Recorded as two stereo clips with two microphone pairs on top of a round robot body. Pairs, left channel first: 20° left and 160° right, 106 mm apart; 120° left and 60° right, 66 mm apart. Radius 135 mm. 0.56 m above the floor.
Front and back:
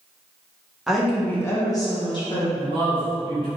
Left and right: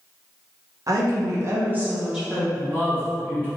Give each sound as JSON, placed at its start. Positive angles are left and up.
{"t": 0.9, "sound": "a woman speaking", "azimuth_deg": -70, "distance_m": 1.4}
{"t": 2.5, "sound": "a man speaking", "azimuth_deg": -125, "distance_m": 1.9}